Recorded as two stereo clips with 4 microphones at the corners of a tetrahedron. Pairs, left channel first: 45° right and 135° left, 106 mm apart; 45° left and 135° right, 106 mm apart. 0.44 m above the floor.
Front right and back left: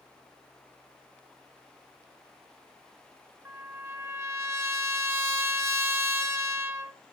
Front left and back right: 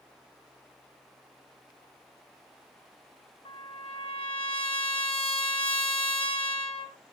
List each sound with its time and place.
3.5 s a trumpet: 70° left, 1.3 m